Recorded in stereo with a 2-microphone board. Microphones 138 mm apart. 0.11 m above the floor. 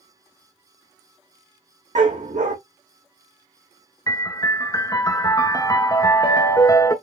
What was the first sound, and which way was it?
A dog barking, 80° right.